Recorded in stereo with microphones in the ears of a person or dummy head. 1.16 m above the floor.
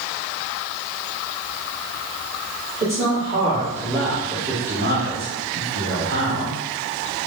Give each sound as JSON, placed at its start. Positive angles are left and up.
{"t": 2.8, "sound": "a man speaking", "side_deg": -20, "distance_m": 2.0}